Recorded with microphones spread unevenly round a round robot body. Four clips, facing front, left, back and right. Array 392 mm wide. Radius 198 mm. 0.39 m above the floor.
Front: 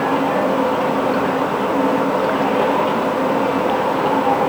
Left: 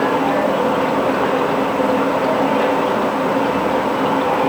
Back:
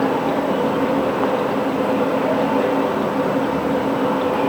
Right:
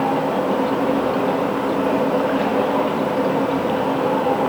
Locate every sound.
Only background noise.